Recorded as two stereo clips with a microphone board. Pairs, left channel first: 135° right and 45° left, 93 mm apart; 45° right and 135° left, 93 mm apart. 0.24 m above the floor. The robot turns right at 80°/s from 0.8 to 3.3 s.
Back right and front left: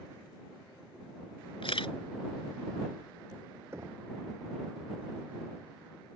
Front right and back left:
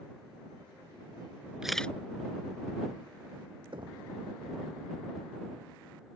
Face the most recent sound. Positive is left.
turn(degrees=105)